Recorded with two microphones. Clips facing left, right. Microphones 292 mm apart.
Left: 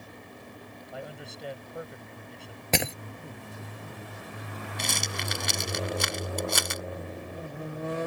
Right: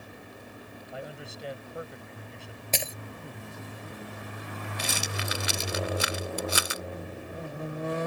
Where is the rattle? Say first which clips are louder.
Even; 5° right (ahead or behind).